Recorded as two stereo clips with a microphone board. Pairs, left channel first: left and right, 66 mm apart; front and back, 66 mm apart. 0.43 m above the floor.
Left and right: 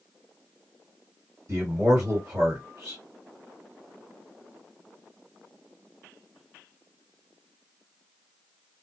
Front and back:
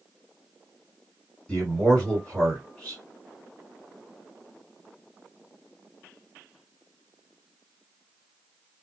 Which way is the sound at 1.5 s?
75° right.